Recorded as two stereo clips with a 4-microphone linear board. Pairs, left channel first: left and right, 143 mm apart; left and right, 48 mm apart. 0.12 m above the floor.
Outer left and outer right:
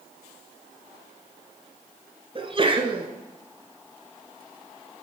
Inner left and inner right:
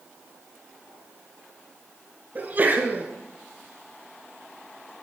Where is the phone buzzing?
I don't hear a phone buzzing.